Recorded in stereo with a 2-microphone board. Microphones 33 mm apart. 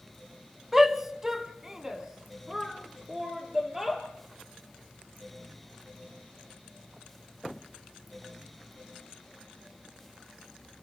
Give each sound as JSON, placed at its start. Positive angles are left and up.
{"t": 0.7, "sound": "a shout", "side_deg": -5, "distance_m": 1.3}